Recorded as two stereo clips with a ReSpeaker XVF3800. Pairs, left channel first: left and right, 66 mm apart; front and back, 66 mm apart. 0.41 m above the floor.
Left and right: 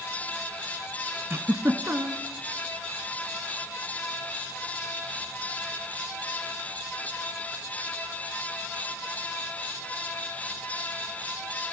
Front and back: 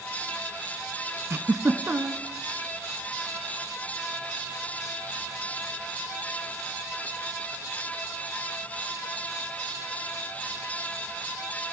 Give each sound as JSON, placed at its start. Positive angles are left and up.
{"t": 1.3, "sound": "a giggle", "azimuth_deg": -130, "distance_m": 0.5}